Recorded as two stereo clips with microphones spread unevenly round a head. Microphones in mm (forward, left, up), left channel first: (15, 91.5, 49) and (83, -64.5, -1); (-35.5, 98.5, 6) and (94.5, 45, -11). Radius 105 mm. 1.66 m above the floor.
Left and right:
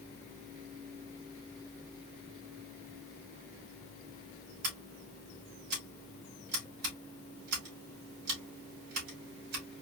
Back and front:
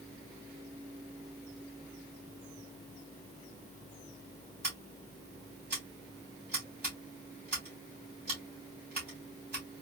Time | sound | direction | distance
4.6 | scissors | 105° right | 2.5 m